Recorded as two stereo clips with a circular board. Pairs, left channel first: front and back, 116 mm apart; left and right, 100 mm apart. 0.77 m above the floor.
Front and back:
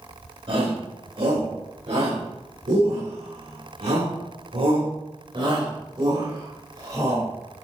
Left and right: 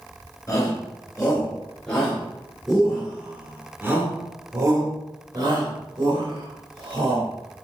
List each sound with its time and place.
0.5 s a shout: 150° left, 3 m; by 7.3 s 115° right, 3.5 m